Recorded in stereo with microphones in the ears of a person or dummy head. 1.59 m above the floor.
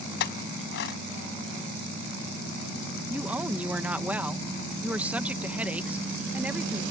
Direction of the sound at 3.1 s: 5° right (ahead or behind).